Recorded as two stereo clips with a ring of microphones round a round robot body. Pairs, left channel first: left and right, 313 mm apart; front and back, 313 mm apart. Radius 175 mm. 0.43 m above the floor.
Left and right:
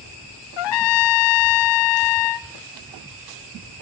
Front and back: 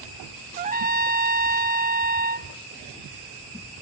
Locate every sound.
0.6 s a trumpet: 110° left, 0.5 m